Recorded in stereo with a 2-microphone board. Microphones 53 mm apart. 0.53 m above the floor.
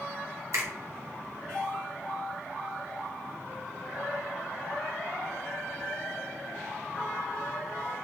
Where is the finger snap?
60° right (ahead or behind), 1.6 m.